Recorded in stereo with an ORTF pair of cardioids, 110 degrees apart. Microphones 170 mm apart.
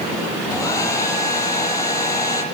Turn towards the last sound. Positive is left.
turn(degrees=20)